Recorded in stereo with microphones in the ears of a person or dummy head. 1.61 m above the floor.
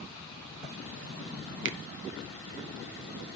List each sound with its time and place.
1.6 s a finger snap: 70° right (ahead or behind), 0.9 m